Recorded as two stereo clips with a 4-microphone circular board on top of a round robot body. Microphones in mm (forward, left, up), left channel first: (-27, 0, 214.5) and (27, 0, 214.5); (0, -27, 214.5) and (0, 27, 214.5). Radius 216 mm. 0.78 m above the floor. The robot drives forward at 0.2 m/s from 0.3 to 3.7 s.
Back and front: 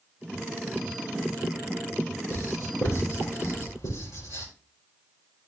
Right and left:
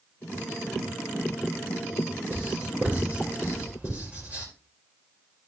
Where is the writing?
145° left, 4 m.